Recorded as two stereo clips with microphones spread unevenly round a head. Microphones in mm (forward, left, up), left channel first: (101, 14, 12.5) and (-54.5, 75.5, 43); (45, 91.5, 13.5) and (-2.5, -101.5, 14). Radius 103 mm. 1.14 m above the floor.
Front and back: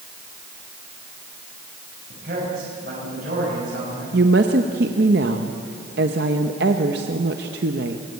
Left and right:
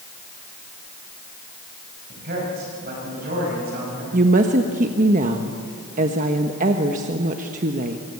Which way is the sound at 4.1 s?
160° right.